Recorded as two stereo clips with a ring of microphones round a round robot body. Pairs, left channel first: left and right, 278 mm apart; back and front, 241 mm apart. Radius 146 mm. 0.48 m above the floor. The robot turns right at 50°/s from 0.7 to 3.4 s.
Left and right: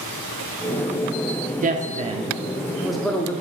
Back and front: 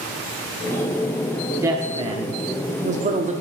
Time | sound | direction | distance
1.6 | a woman speaking | 65° right | 0.8 m